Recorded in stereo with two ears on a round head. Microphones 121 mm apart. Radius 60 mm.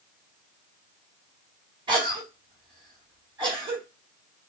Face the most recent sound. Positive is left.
turn(degrees=-35)  # may be behind; listen again after turning